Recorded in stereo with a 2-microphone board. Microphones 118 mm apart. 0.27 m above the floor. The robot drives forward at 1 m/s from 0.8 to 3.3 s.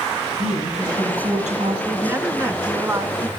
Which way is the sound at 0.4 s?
75° right (ahead or behind).